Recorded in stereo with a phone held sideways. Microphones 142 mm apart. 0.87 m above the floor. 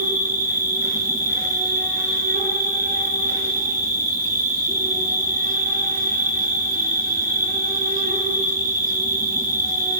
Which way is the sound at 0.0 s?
80° right.